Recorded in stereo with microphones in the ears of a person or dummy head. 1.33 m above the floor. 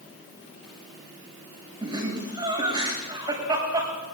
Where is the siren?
I don't hear a siren.